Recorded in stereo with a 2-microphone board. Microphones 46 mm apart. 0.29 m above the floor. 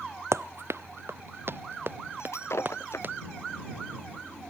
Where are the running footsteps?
80° right; by 3.1 s 45° right (ahead or behind).